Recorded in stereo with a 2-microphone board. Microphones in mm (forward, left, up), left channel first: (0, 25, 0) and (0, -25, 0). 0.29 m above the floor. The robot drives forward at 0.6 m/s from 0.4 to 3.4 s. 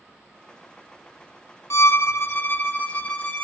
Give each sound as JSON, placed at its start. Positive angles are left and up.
{"t": 1.7, "sound": "a violin", "side_deg": 70, "distance_m": 0.5}